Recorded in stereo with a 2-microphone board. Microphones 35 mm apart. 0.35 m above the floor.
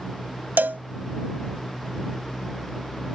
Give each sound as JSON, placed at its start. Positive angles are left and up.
{"t": 0.6, "sound": "a cowbell", "side_deg": -70}